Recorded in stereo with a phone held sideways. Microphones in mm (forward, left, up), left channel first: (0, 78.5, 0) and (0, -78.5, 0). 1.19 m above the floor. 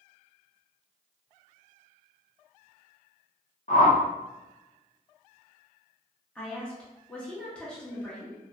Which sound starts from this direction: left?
A whoosh, at 3.7 s.